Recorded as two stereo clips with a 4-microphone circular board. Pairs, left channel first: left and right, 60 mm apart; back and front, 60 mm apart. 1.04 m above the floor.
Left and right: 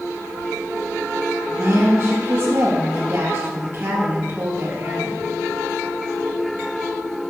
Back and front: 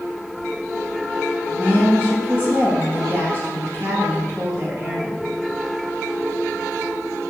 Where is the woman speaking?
45° right, 2.0 m.